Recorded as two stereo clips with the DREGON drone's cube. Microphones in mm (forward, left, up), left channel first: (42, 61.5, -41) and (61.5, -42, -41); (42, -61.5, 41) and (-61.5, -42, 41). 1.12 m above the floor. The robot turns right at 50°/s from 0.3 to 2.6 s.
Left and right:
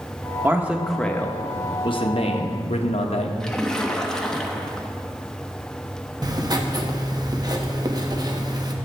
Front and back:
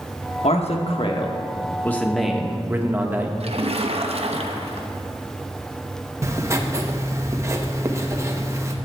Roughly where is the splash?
Behind.